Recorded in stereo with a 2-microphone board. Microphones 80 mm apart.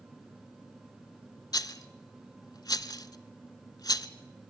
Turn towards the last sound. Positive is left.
turn(degrees=55)  # may be behind; listen again after turning